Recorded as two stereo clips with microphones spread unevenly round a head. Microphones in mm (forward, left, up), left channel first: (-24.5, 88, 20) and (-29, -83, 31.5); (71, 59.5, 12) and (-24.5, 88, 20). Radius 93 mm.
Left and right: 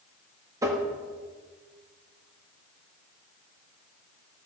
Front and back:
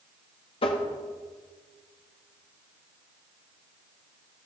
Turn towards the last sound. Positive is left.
turn(degrees=-15)